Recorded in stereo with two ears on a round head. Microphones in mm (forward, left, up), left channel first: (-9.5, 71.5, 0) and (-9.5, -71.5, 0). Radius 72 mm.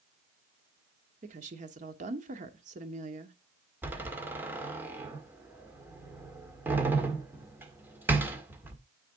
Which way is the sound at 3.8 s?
15° right (ahead or behind).